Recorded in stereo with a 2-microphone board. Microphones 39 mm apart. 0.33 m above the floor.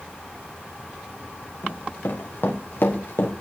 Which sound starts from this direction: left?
Running footsteps, at 1.6 s.